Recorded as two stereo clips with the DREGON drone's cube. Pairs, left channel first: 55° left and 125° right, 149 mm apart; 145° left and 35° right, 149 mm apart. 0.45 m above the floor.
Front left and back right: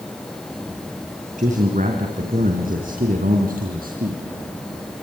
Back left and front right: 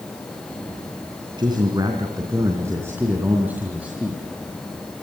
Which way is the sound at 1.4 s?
95° right.